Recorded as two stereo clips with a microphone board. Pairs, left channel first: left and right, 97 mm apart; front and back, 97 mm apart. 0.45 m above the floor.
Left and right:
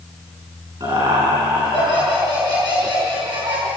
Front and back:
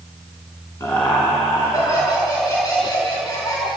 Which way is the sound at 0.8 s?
55° right.